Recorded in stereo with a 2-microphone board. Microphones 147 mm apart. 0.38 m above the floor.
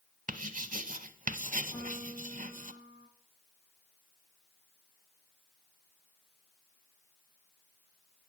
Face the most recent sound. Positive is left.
turn(degrees=25)  # may be behind; listen again after turning